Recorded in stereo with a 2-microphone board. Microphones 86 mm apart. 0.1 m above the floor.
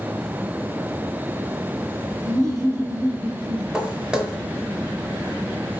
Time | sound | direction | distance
2.2 | laughter | 40° right (ahead or behind) | 2.5 m
3.7 | footsteps | 10° right (ahead or behind) | 1.0 m